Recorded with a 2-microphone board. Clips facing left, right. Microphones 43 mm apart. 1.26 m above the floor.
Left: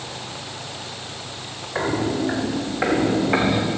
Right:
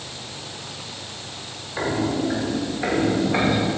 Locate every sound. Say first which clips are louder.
1.8 s footsteps: left 1 dB; 75° left (ahead or behind), 4.5 m; by 3.7 s 65° left (ahead or behind), 5 m